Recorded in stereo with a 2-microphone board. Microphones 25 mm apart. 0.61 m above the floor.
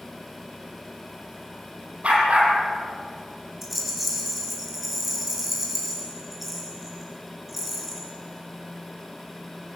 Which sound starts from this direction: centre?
A rattle, at 3.6 s.